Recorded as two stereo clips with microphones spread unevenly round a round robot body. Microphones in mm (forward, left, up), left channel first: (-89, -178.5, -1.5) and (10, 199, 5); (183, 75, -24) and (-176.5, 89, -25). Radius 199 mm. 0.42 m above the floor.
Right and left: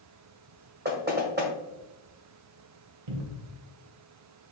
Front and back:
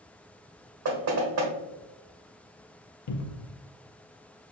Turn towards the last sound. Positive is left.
turn(degrees=45)